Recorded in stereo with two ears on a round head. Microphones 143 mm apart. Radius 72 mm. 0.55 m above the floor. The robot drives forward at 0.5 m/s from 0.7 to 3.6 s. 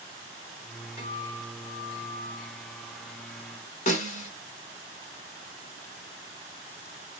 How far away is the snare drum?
About 1.3 m.